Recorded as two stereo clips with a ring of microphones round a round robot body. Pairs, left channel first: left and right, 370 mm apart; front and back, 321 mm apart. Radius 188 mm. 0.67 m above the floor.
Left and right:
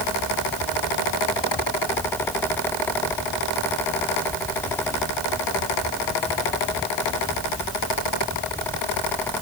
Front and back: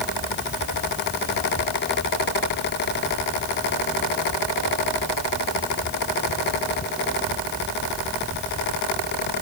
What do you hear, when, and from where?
Only background noise.